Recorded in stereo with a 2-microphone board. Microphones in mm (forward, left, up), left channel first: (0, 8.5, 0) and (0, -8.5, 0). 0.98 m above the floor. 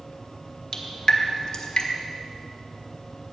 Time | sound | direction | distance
0.7 | dripping | 50° left (ahead or behind) | 1.4 m